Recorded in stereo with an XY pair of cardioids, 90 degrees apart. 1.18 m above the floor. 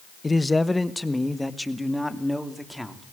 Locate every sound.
0.2 s a man speaking: 20° left, 1.0 m; by 3.0 s 5° right, 3 m